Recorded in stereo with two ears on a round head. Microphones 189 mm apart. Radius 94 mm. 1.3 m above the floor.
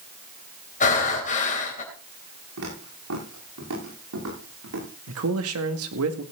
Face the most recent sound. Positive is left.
turn(degrees=-80)